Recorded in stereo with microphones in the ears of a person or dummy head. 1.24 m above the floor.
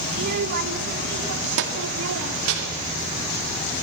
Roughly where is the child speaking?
Right.